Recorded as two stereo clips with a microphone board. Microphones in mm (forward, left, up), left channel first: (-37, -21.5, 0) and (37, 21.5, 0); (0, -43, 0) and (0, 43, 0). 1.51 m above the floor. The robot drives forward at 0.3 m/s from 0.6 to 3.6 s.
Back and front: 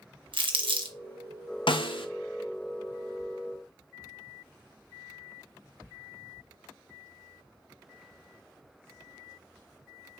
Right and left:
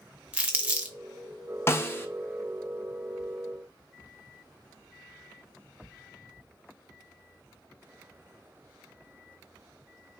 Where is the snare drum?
150° right, 0.6 m; by 2.1 s 155° right, 0.6 m.